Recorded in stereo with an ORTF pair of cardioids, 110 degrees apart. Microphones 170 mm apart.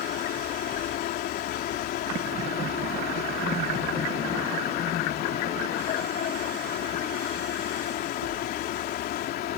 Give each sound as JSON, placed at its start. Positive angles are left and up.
{"t": 0.0, "sound": "a fan", "azimuth_deg": 70}